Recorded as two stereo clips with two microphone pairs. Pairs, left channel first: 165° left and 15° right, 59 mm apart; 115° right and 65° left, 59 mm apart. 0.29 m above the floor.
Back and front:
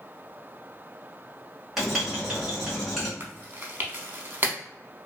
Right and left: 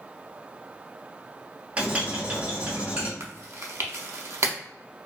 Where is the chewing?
35° left, 0.5 m.